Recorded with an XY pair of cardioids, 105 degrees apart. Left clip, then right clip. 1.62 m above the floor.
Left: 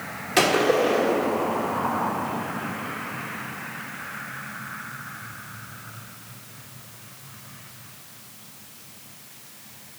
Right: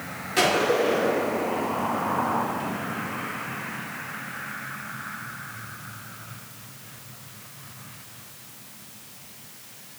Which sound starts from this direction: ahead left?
A gunshot, at 0.4 s.